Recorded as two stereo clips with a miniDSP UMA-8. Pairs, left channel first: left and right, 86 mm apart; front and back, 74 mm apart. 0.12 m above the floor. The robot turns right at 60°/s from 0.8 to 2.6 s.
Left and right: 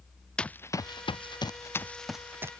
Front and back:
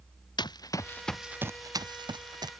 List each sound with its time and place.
0.4 s running footsteps: 10° left; by 2.5 s 150° right